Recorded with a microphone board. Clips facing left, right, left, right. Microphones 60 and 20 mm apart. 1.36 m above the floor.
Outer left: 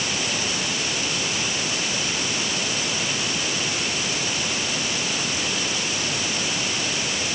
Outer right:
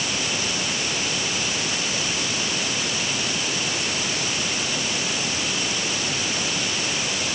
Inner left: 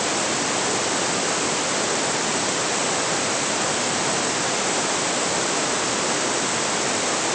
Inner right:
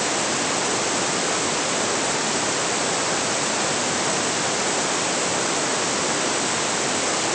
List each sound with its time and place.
Only background noise.